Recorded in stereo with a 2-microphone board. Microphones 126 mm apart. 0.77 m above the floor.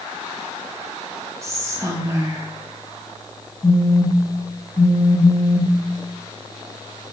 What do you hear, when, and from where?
1.4 s whispering: 20° right (ahead or behind), 0.5 m
3.6 s a phone buzzing: 20° left (ahead or behind), 0.7 m